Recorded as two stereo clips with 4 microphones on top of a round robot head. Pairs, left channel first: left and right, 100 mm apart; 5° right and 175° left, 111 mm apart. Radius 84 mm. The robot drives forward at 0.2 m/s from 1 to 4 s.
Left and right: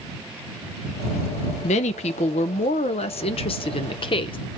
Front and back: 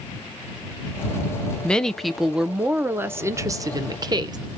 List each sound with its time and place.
1.6 s a woman speaking: 75° left, 0.6 m; by 4.4 s 120° left, 0.6 m